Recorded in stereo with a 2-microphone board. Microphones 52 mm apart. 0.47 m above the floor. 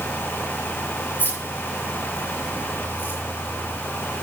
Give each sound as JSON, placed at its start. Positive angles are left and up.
{"t": 1.2, "sound": "keys jangling", "side_deg": 45, "distance_m": 5.5}